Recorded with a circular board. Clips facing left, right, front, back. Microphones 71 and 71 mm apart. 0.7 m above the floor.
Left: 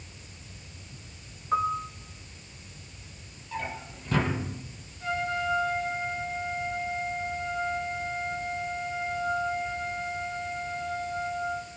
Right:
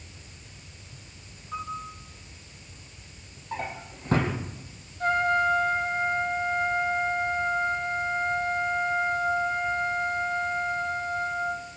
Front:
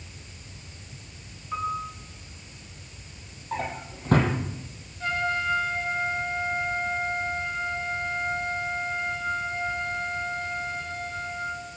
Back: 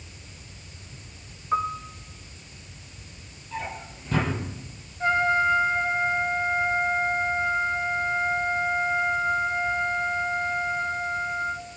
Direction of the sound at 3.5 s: 35° right.